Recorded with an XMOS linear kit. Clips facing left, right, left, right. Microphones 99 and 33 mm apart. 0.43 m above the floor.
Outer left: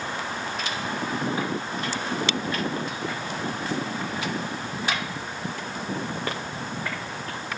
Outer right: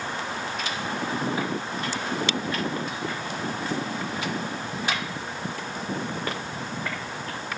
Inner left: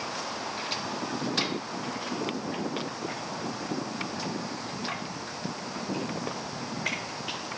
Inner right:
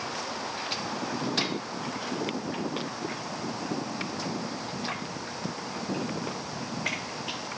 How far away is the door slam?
No door slam in this recording.